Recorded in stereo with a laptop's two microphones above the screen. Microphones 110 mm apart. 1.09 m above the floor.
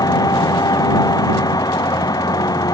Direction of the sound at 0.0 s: 35° left (ahead or behind).